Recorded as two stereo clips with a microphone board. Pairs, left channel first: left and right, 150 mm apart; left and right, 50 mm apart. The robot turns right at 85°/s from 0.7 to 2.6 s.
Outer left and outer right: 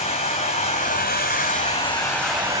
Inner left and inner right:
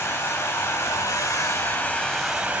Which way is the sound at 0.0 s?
45° left.